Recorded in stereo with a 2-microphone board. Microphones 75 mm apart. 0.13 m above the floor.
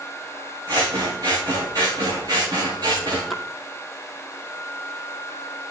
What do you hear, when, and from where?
0.7 s scissors: 60° right (ahead or behind), 7 m
3.3 s a splash: centre (ahead or behind), 1.5 m